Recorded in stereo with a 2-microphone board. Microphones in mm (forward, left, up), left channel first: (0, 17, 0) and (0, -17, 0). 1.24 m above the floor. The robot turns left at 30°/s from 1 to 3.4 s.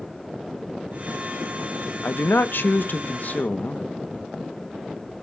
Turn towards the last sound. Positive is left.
turn(degrees=50)